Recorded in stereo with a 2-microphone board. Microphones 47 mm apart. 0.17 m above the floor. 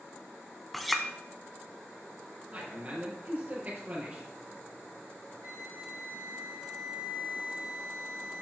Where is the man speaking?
35° right (ahead or behind), 3.5 m.